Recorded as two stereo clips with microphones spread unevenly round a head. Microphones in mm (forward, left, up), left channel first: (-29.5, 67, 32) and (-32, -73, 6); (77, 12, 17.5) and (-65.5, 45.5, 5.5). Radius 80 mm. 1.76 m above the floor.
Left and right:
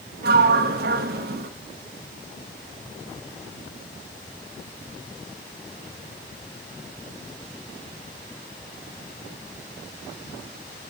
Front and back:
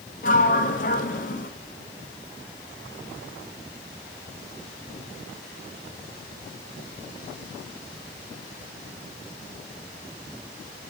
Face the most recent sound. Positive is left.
turn(degrees=-60)